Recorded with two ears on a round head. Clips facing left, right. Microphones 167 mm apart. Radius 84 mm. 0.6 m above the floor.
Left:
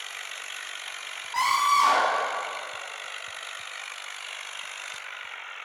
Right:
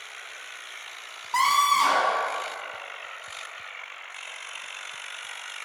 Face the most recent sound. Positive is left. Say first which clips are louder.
# right 1 dB
turn(degrees=-70)  # may be behind; listen again after turning